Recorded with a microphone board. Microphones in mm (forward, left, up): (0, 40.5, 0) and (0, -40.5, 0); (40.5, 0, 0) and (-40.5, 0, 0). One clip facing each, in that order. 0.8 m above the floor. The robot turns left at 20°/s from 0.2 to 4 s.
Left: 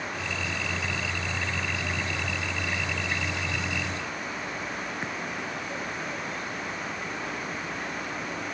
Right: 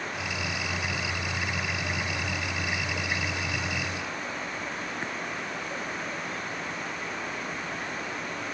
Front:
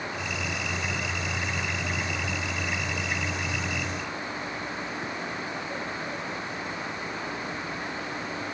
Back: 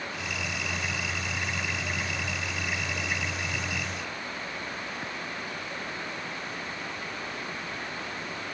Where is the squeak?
I don't hear a squeak.